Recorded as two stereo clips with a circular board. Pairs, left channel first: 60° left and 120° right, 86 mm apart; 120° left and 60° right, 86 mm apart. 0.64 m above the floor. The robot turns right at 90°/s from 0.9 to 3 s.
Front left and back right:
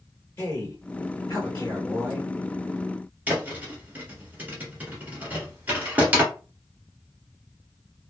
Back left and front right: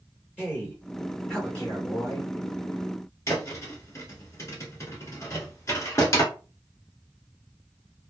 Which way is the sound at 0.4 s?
10° left.